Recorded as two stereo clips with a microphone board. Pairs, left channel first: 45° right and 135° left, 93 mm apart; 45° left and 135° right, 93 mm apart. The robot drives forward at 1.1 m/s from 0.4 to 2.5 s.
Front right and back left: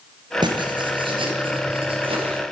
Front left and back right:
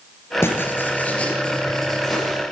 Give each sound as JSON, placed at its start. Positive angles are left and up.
{"t": 0.4, "sound": "writing", "azimuth_deg": 105, "distance_m": 3.0}